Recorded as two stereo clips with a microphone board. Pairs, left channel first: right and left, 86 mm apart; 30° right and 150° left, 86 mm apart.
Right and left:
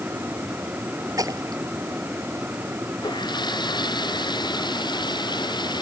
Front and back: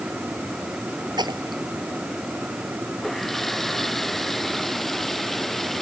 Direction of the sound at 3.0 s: 120° right.